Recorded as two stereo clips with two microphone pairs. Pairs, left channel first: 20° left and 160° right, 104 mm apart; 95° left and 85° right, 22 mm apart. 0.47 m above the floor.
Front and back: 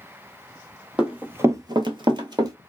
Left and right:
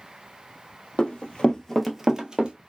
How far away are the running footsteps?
About 1.1 m.